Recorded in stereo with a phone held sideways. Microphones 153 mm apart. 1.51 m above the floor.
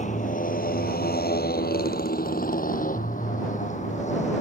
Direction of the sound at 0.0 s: 50° left (ahead or behind).